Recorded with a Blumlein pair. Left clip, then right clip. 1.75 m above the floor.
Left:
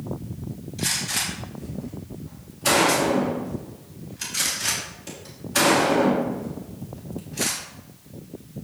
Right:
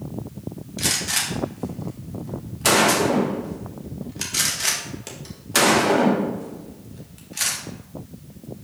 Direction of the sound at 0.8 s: 30° right.